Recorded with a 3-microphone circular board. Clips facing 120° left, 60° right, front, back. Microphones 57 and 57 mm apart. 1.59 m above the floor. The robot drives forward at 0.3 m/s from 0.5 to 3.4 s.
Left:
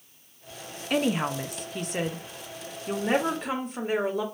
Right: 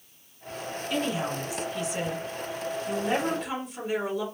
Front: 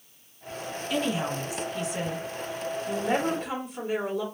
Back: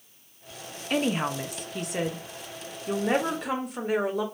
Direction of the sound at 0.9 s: 145° left.